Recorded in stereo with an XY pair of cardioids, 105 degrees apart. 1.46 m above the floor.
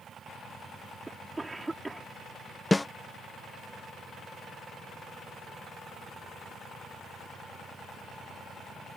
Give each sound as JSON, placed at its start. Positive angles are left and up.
{"t": 1.1, "sound": "a cough", "azimuth_deg": -15}
{"t": 2.7, "sound": "a snare drum", "azimuth_deg": 15}